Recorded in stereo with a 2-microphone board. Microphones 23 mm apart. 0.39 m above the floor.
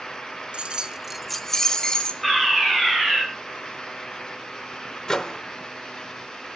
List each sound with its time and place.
0.5 s keys jangling: 50° right (ahead or behind), 0.9 m; by 2.1 s 35° left (ahead or behind), 1.6 m
2.2 s a fire alarm: 5° left (ahead or behind), 5.5 m
5.1 s a microwave: 25° left (ahead or behind), 0.7 m